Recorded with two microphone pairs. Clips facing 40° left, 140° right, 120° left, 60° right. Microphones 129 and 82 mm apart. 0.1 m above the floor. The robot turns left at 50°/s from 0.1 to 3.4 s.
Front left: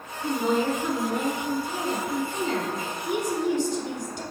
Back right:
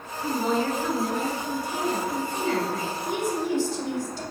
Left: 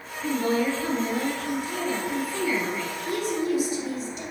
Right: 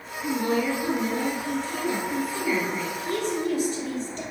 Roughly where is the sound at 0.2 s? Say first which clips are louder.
Front left 1 dB, left 1 dB; behind left.